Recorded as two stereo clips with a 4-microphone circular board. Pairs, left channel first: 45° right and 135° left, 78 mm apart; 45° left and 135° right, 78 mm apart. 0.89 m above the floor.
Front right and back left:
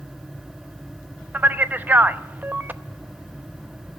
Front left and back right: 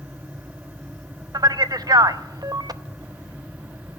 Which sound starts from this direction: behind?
A man speaking, at 1.3 s.